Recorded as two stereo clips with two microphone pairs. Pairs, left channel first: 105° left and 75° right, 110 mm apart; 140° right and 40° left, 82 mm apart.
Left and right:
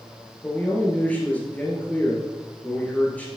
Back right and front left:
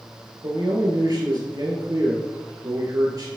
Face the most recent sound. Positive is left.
turn(degrees=30)